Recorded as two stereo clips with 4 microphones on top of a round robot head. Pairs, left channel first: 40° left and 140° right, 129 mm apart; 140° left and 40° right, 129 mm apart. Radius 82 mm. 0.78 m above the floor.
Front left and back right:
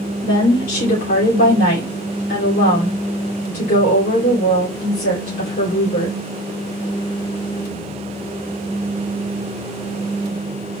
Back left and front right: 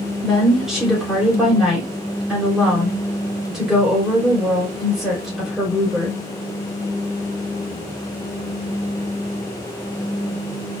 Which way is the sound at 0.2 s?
50° left.